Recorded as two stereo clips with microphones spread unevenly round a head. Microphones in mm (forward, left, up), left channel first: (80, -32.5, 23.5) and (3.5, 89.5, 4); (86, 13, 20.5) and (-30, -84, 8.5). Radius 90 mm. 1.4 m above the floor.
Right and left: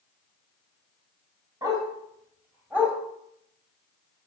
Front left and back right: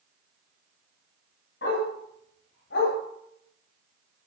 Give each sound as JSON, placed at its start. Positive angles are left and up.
{"t": 1.6, "sound": "a dog barking", "azimuth_deg": 55, "distance_m": 4.5}